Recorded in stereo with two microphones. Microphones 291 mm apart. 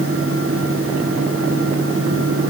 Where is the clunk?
I don't hear a clunk.